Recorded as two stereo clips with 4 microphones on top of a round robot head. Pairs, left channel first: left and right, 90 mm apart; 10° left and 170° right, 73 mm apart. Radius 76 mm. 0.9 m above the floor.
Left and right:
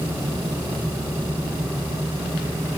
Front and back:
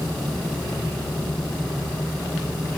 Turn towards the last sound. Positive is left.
No sound to turn to.